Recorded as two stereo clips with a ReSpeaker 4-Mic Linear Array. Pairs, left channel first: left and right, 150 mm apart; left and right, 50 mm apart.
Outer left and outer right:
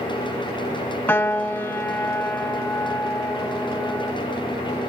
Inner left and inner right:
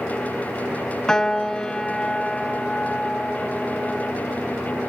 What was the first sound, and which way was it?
A piano, 15° left (ahead or behind).